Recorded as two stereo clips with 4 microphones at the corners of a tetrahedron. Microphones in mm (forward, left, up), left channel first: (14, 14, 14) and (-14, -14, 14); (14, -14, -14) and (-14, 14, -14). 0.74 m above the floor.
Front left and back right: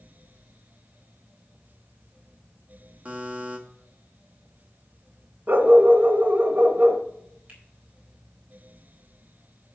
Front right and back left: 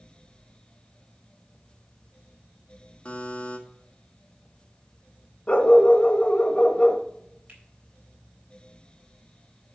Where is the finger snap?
Straight behind, 3.5 m.